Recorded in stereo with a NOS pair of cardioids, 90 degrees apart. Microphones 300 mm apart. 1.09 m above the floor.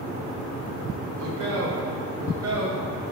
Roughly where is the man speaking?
Ahead right.